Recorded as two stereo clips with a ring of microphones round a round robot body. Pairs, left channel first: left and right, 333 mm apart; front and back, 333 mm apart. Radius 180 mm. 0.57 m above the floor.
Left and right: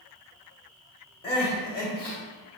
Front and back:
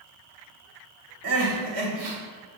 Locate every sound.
1.2 s crying: 165° left, 1.1 m